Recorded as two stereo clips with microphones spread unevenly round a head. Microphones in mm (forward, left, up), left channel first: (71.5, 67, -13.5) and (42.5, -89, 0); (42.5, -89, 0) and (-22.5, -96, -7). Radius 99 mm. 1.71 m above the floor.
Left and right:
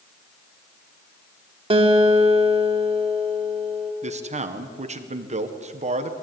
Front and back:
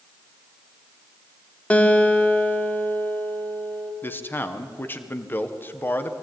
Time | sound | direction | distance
1.7 | a guitar | 55° right | 2 m
4.0 | a man speaking | 55° right | 1.7 m